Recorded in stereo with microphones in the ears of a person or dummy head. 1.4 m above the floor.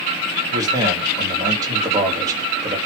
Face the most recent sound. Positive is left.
turn(degrees=-15)  # may be behind; listen again after turning